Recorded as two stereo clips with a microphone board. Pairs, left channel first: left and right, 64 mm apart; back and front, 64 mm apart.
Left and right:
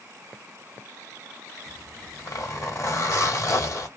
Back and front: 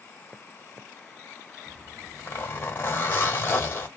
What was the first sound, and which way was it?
A zipper, 125° left.